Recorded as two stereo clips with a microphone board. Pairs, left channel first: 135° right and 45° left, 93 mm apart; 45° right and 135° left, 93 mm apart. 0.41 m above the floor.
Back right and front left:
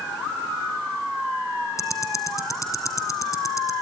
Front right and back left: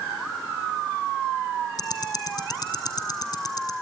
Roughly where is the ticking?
Right.